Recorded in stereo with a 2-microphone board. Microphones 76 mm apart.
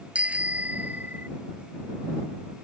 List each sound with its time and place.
0.1 s a bicycle bell: 20° right (ahead or behind); by 1.3 s 25° right (ahead or behind)